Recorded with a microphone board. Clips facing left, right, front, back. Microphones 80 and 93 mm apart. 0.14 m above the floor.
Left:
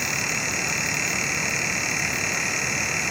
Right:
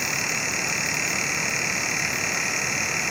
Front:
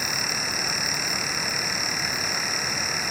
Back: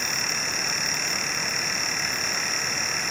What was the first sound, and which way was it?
Only background noise.